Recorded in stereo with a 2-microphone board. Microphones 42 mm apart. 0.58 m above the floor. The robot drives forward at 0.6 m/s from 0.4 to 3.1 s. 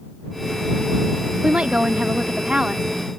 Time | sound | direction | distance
1.4 | a woman speaking | 30° right (ahead or behind) | ?